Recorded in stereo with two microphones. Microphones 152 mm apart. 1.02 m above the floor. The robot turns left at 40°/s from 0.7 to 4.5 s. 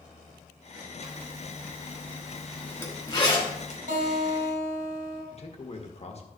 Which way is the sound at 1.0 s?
55° right (ahead or behind).